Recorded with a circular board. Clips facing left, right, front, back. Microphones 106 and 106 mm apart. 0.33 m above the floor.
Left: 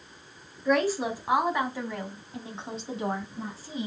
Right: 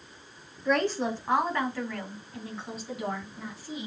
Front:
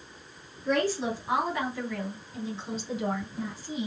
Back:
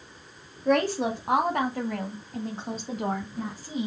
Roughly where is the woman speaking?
Behind.